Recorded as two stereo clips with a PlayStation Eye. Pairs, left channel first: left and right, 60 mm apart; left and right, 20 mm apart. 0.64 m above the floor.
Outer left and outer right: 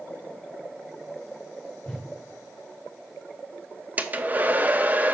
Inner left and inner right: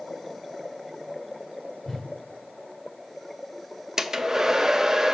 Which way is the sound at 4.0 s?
25° right (ahead or behind).